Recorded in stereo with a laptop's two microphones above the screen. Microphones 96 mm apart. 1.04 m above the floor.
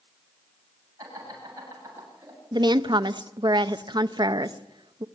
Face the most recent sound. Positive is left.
turn(degrees=-50)  # may be behind; listen again after turning